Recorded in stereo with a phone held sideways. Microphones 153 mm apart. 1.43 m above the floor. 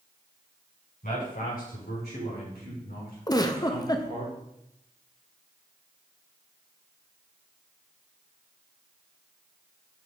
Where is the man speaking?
65° left (ahead or behind), 5 m; by 4.3 s 60° left (ahead or behind), 4.5 m.